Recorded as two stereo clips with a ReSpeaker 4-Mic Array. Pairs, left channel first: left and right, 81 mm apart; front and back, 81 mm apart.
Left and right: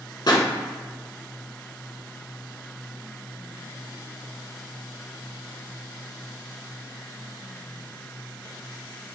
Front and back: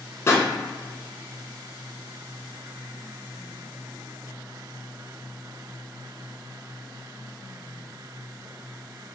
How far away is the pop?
About 1.0 m.